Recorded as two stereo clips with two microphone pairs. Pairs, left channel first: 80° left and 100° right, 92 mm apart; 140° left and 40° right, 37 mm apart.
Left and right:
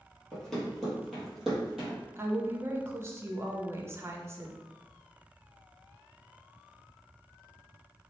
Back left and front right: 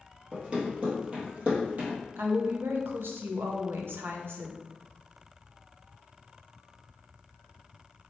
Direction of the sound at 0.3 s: 5° left.